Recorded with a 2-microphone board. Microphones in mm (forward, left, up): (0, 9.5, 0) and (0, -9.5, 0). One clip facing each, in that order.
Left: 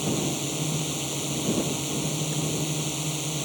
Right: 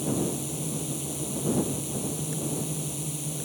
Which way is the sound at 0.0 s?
35° left (ahead or behind).